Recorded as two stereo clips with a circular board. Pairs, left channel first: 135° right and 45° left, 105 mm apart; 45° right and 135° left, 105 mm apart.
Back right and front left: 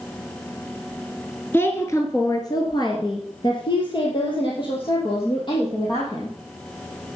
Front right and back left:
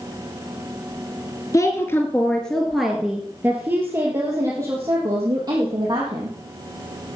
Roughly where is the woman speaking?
Right.